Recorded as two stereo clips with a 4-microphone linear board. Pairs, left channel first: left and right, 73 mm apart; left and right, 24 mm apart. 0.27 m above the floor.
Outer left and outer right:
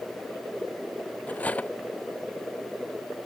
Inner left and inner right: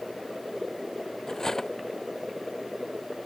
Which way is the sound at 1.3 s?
20° left (ahead or behind).